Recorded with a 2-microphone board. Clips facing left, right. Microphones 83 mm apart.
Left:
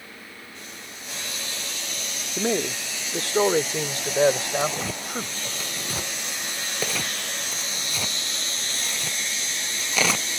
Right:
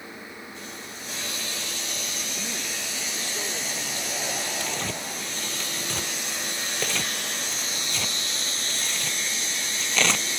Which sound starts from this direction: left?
A man speaking, at 2.4 s.